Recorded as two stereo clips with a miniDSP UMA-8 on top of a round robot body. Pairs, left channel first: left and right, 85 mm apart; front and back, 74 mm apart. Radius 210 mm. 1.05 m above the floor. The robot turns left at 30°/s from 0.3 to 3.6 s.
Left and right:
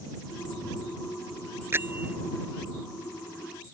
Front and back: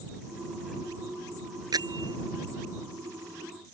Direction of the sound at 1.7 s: 150° right.